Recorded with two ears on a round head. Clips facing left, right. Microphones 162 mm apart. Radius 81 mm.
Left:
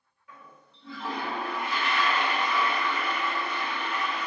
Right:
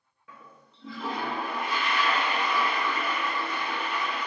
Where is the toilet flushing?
65° right (ahead or behind), 1.2 m.